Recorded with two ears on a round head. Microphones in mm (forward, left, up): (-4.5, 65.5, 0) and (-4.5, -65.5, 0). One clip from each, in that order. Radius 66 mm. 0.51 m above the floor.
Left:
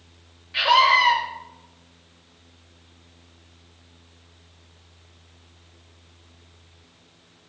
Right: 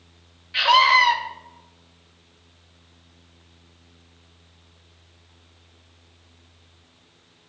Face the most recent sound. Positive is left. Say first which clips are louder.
# right 1 dB
turn(degrees=-30)  # may be behind; listen again after turning